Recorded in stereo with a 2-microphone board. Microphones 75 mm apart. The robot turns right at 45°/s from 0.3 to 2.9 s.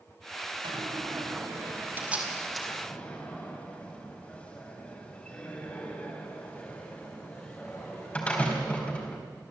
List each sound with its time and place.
0.6 s a door slam: 80° right, 4 m; by 9.2 s 20° left (ahead or behind), 4 m